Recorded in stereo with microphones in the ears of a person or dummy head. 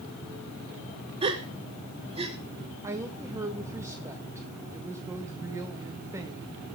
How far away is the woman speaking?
About 1.7 m.